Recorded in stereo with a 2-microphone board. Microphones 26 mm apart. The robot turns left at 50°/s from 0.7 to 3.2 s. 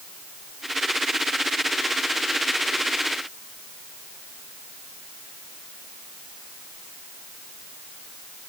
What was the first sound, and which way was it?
Only background noise.